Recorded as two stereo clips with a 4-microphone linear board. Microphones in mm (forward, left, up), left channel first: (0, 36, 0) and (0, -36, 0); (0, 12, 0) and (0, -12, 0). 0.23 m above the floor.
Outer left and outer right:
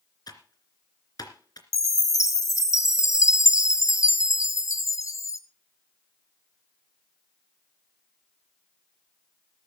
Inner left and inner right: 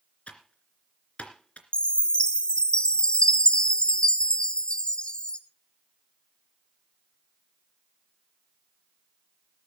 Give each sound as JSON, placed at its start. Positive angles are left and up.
{"t": 0.3, "sound": "typing on a keyboard", "side_deg": 60, "distance_m": 2.5}
{"t": 1.7, "sound": "a chime", "side_deg": 45, "distance_m": 1.2}